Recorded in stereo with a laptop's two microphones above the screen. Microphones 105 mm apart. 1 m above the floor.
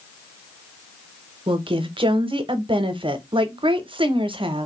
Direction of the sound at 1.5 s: 55° right (ahead or behind).